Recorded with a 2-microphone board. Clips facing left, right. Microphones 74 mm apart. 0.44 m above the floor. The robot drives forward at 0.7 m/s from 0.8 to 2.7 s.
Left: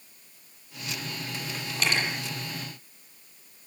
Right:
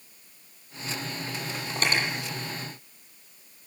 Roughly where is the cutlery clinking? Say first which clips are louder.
Right 1 dB; right.